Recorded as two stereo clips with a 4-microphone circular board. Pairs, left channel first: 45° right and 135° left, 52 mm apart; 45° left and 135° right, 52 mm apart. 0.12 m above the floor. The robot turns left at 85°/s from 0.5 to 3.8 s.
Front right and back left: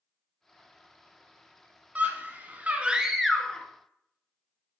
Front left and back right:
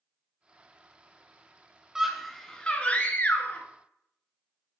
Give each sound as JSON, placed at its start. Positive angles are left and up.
{"t": 1.9, "sound": "a scream", "azimuth_deg": 160, "distance_m": 1.4}